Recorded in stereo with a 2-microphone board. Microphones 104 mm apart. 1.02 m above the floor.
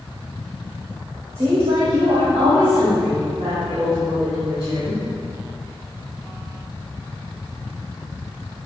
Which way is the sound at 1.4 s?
75° right (ahead or behind).